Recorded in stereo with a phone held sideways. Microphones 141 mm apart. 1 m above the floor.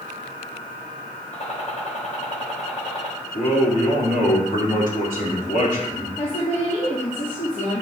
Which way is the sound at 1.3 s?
60° left (ahead or behind).